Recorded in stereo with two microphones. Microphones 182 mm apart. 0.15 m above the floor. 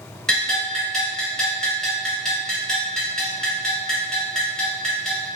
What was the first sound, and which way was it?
A bell, 5° left (ahead or behind).